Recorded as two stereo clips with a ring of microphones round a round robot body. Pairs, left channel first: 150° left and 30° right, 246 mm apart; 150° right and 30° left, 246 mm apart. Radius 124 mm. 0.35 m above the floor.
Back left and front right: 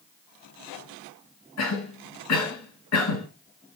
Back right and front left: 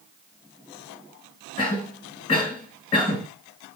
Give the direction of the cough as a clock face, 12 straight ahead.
7 o'clock.